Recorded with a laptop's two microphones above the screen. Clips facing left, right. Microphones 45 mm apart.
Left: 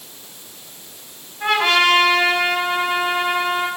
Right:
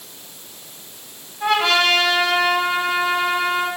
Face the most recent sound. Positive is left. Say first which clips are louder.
# left 1 dB
turn(degrees=15)  # may be behind; listen again after turning